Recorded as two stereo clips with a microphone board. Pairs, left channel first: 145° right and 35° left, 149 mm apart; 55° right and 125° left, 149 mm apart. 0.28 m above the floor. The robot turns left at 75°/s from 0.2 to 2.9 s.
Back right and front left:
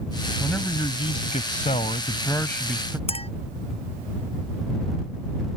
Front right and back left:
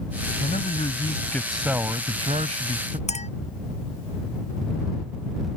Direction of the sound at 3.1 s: 95° right.